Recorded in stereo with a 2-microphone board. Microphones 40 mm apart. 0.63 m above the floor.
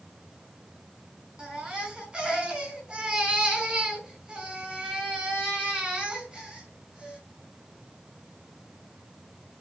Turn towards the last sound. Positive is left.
turn(degrees=-20)  # may be behind; listen again after turning